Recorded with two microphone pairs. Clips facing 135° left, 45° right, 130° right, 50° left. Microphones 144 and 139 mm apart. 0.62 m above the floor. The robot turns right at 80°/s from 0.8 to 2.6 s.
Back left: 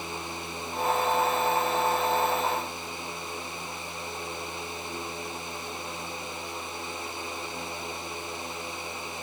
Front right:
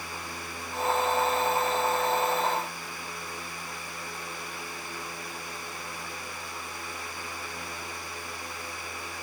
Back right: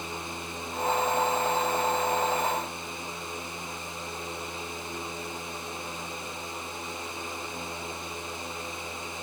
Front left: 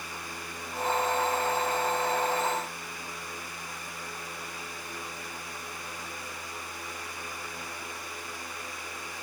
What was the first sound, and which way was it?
Only background noise.